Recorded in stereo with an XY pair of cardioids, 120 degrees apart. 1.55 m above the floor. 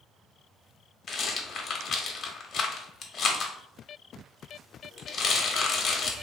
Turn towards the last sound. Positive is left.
turn(degrees=45)